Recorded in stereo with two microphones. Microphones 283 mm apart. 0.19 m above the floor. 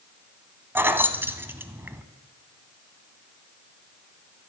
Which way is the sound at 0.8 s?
10° right (ahead or behind).